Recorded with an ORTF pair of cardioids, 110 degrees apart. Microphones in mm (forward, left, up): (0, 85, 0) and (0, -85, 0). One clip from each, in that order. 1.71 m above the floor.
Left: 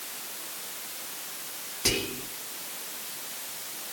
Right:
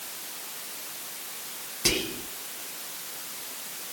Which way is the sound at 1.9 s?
10° right.